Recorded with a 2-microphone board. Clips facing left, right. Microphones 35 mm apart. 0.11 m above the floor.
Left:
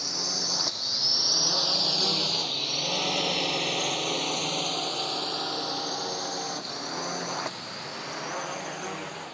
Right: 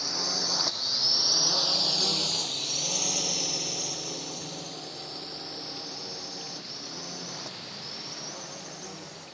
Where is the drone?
10° right (ahead or behind); by 9.3 s 50° left (ahead or behind).